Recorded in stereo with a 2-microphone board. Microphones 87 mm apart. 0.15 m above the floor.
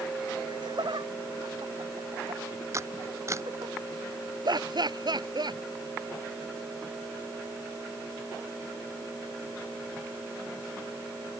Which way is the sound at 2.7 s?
40° right (ahead or behind).